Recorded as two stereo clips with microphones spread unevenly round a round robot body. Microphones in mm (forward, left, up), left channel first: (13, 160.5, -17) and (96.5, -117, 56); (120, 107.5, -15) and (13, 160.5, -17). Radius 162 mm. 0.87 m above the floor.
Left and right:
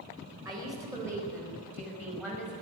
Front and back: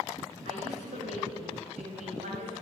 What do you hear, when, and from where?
0.5 s a woman speaking: 155° right, 4.5 m; by 2.5 s 160° right, 5.5 m